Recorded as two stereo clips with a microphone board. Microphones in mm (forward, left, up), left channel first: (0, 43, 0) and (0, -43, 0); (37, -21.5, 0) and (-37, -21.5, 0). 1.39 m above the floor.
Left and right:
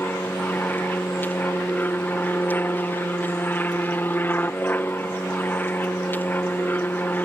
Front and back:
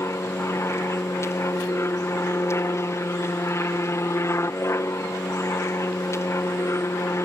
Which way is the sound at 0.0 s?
30° left.